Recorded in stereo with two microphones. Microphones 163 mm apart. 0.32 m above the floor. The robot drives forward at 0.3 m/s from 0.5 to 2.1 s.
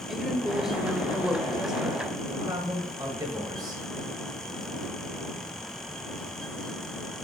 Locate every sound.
0.1 s a woman speaking: 5° right (ahead or behind), 0.9 m; by 2.0 s centre (ahead or behind), 1.1 m
2.3 s a man speaking: 25° right (ahead or behind), 1.7 m